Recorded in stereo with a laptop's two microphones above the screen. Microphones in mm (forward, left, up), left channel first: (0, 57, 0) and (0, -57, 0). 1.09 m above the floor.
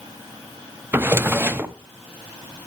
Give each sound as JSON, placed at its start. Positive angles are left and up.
{"t": 0.9, "sound": "a drawer", "side_deg": -20, "distance_m": 0.6}